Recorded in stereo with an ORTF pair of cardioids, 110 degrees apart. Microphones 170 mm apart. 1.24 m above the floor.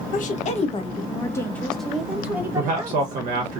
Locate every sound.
0.1 s a woman speaking: 55° left, 1.1 m; by 3.2 s 25° right, 1.5 m
2.5 s a man speaking: 60° right, 1.1 m